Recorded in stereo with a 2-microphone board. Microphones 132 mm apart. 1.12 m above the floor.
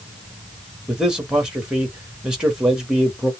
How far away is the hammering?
I don't hear hammering.